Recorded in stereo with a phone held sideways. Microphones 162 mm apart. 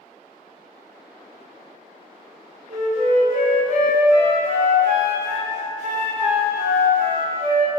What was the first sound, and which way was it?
A flute, 50° right (ahead or behind).